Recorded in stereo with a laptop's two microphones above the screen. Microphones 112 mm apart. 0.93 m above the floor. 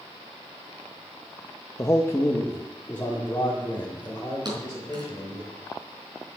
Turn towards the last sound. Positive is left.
turn(degrees=-40)  # may be behind; listen again after turning